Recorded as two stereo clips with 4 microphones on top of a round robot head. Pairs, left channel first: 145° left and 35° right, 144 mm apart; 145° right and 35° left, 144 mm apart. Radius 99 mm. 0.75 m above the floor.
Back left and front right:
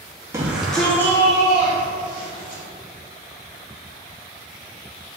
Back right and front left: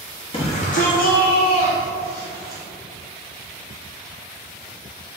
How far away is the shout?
About 1.0 m.